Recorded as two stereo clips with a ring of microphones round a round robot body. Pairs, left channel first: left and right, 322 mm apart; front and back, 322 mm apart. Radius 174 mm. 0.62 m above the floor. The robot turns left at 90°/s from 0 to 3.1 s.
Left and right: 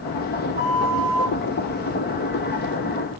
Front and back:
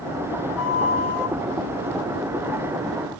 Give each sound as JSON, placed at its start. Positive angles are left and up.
{"t": 0.6, "sound": "a flute", "azimuth_deg": -75, "distance_m": 6.5}